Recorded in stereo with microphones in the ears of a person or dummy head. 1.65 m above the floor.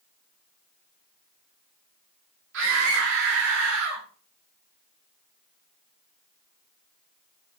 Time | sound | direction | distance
2.5 | a scream | 65° right (ahead or behind) | 4 m